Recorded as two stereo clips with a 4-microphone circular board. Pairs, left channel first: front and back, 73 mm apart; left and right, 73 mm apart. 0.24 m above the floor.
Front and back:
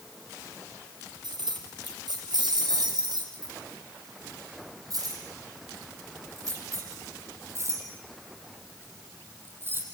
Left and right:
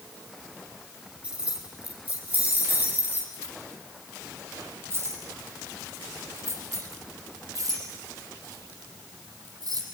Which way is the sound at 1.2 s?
165° right.